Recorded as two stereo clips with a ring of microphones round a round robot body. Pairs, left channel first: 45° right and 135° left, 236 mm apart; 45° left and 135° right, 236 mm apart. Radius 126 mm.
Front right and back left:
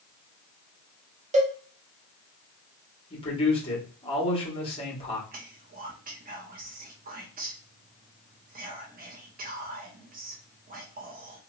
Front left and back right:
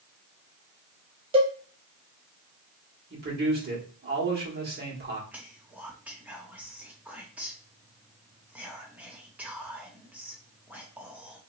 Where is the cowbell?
175° left, 1.0 m.